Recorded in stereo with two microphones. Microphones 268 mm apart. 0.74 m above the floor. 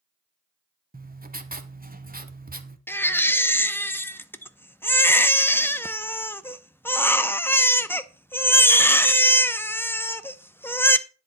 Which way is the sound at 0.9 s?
30° right (ahead or behind).